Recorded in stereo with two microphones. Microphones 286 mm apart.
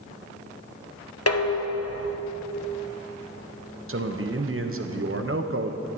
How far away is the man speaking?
About 1.0 m.